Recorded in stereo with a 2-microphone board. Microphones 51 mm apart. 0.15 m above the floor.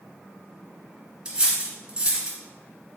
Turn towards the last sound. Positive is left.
turn(degrees=-15)  # may be behind; listen again after turning